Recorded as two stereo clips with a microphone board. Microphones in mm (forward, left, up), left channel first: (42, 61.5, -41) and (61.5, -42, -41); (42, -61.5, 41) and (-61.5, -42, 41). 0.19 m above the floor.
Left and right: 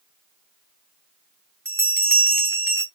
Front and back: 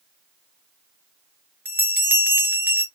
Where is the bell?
130° right, 1.3 m.